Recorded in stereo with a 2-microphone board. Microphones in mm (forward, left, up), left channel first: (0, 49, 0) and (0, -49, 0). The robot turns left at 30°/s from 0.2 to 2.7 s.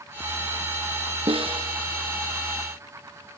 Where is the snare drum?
65° right (ahead or behind), 1.6 m; by 1.7 s 70° right (ahead or behind), 1.6 m.